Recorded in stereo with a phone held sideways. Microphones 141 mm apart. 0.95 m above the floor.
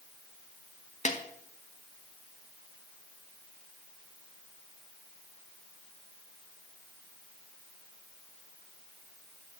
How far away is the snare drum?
About 1.0 m.